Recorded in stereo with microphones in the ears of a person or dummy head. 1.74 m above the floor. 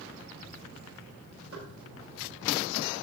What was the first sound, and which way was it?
Knocking, 75° right (ahead or behind).